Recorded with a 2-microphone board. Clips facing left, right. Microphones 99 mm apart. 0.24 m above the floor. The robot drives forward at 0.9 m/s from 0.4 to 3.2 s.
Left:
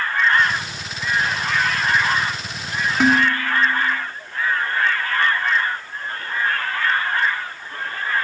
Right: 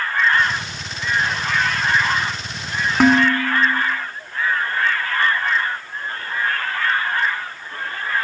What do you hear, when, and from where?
3.0 s dishes clattering: 55° right (ahead or behind), 1.6 m